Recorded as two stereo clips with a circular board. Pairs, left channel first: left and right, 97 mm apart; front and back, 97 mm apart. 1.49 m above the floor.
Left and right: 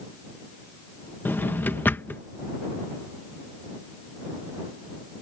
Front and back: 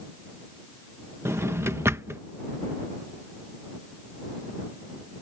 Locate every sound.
1.2 s a drawer: 145° left